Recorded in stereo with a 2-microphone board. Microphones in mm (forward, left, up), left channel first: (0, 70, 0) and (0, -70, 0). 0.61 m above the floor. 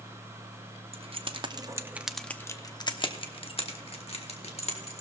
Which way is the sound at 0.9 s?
45° right (ahead or behind).